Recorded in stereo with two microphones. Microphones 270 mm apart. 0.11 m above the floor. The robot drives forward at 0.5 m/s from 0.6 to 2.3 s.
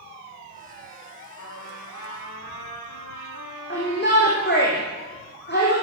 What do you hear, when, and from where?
1.4 s a trumpet: 85° left, 8.5 m
3.7 s a shout: 35° left (ahead or behind), 5 m